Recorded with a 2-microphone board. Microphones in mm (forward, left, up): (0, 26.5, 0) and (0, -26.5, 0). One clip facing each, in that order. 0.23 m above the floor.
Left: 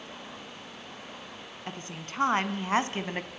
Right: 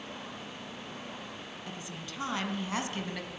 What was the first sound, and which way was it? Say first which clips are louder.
A woman speaking: left 5 dB; 45° left (ahead or behind).